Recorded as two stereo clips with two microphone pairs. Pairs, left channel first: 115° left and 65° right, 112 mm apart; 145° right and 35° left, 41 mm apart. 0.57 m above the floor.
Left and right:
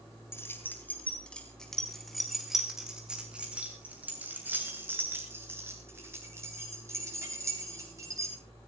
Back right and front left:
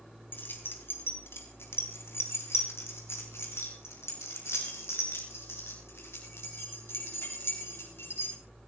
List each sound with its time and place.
0.3 s keys jangling: straight behind, 3.5 m; by 8.3 s 125° right, 9.5 m